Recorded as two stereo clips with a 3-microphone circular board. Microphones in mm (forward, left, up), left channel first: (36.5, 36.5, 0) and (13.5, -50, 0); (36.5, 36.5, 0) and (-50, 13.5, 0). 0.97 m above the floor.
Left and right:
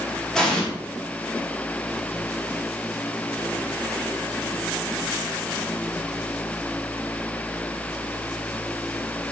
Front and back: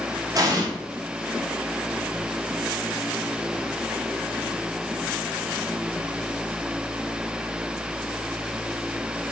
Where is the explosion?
155° left, 0.7 m.